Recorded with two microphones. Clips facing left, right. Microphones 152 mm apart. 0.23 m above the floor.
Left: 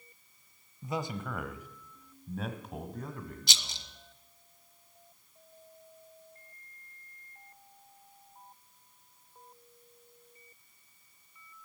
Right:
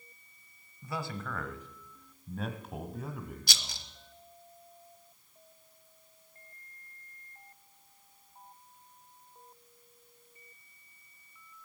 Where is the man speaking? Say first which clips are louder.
Left 3 dB; 20° left (ahead or behind), 1.0 m; by 3.9 s 10° right (ahead or behind), 1.7 m.